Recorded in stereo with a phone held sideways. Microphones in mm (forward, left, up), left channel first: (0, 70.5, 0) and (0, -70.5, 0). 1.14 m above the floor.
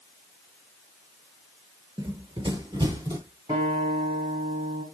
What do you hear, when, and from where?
2.0 s running footsteps: 30° right (ahead or behind), 1.2 m; by 3.2 s 25° right (ahead or behind), 1.7 m
3.5 s a guitar: 35° right (ahead or behind), 7.5 m